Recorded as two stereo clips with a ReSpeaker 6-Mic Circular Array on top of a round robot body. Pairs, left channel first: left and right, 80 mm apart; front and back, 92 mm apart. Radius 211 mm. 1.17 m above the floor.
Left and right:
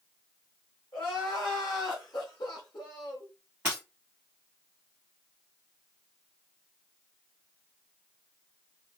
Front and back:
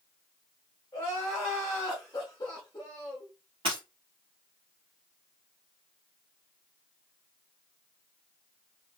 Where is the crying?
60° left, 0.6 m.